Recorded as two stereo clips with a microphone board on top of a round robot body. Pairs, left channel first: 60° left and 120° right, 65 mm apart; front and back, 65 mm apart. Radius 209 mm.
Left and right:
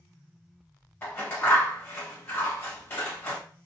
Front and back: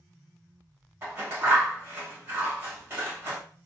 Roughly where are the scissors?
Behind left.